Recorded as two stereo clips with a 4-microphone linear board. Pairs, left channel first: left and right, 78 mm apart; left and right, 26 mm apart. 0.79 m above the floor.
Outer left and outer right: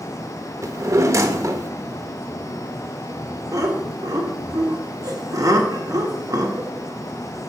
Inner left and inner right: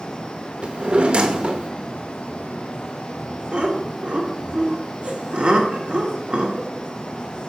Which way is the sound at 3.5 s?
45° right (ahead or behind).